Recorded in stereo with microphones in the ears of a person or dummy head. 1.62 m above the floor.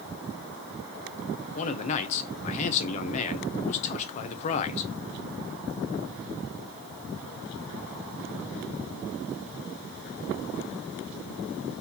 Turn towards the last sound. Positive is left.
turn(degrees=35)  # may be behind; listen again after turning